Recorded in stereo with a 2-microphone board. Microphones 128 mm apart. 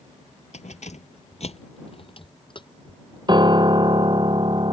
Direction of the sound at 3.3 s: 35° right (ahead or behind).